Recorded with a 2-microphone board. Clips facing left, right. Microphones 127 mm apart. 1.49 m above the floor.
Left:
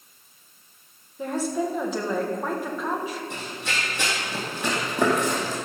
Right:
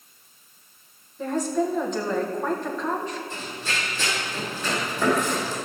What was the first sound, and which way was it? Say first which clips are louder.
A woman speaking: right 2 dB; 5° left (ahead or behind).